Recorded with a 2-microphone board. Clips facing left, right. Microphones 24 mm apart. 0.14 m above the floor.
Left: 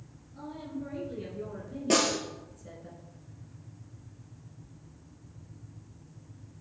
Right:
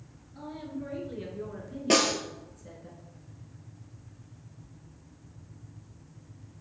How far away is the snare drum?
About 1.2 m.